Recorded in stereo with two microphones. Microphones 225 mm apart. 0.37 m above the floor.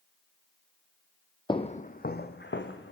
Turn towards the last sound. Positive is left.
turn(degrees=60)  # may be behind; listen again after turning